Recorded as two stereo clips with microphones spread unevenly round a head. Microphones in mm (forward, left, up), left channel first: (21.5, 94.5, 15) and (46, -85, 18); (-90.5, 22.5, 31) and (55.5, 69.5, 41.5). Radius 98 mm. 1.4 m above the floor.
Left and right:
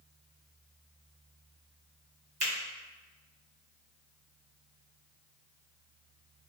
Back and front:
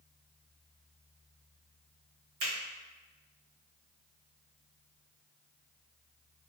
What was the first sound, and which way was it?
A finger snap, 30° right.